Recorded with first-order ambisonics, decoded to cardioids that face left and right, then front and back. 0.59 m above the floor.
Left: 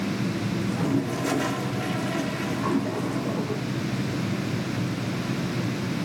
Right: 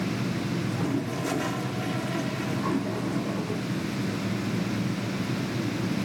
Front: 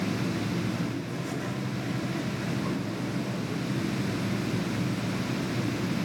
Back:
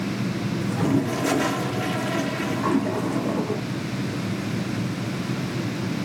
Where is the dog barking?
I don't hear a dog barking.